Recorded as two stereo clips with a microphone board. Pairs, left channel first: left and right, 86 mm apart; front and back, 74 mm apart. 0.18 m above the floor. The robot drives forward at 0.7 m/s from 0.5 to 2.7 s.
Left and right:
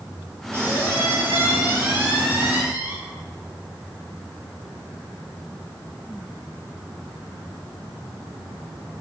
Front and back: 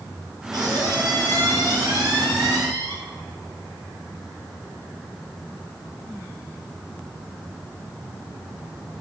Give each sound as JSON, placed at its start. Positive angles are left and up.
{"t": 0.5, "sound": "a squeak", "azimuth_deg": -155, "distance_m": 4.0}